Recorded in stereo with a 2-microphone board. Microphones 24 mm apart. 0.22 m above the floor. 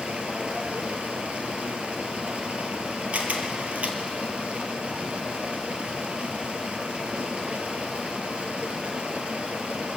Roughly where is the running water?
Right.